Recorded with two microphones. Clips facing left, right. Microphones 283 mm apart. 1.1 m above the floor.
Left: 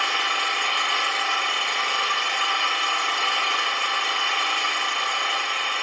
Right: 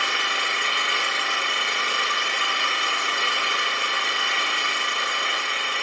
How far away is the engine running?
About 0.8 m.